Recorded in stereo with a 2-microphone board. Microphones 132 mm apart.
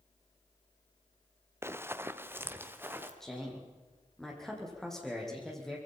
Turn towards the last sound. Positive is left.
turn(degrees=5)  # may be behind; listen again after turning